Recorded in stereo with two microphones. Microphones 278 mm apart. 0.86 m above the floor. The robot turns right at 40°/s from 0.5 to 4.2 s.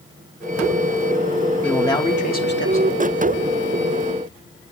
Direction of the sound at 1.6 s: 5° left.